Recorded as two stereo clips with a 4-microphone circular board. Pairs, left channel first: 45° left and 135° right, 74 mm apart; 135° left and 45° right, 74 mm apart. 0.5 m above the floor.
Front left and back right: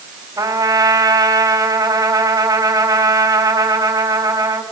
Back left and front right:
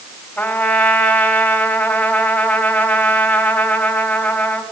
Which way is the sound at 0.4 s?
160° right.